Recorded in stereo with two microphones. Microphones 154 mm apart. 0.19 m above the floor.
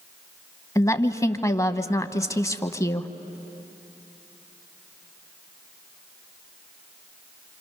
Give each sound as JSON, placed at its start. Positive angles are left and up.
{"t": 0.8, "sound": "a woman speaking", "side_deg": 20, "distance_m": 1.0}